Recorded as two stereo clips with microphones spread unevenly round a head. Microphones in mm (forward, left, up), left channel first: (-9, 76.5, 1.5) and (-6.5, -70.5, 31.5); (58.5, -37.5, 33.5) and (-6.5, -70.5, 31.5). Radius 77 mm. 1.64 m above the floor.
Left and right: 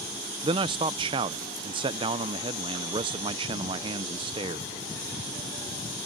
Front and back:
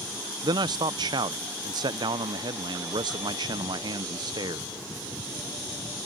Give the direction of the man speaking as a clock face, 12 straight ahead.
5 o'clock.